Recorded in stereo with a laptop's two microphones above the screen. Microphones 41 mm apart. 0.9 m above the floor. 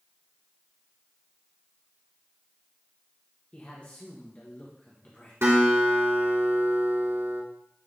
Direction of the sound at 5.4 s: 80° right.